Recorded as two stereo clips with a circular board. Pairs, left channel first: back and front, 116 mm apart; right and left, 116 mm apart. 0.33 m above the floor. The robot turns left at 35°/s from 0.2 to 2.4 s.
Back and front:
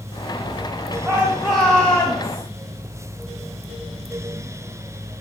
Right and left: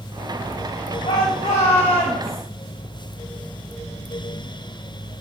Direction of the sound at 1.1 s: 75° right.